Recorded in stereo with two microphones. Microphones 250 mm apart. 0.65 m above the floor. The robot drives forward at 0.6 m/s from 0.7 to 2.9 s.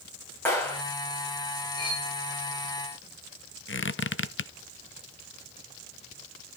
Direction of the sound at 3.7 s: 50° left (ahead or behind).